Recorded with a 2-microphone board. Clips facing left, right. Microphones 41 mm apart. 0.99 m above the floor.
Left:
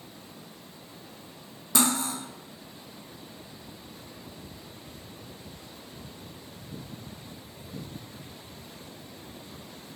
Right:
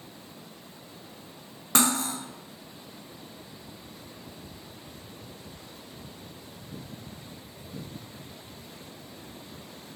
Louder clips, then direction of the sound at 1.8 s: Right 1 dB; 55° right (ahead or behind).